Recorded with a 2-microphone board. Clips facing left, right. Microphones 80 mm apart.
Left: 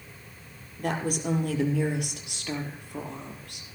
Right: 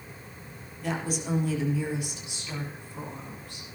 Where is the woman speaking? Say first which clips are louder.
Left 3 dB; 50° left (ahead or behind), 4.5 m; by 3.6 s 65° left (ahead or behind), 4 m.